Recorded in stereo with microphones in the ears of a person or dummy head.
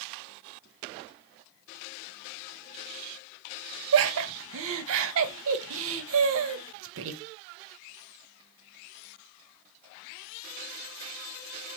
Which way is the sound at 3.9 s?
75° right (ahead or behind).